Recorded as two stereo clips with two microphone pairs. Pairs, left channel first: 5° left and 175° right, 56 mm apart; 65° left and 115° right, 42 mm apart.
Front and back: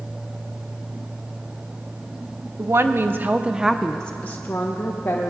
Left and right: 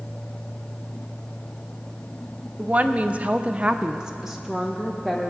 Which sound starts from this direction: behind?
A woman speaking, at 2.6 s.